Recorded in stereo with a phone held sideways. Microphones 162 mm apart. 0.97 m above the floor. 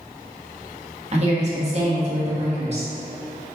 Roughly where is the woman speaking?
Right.